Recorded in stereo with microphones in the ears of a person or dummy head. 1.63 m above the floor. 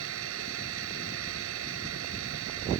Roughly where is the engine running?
Right.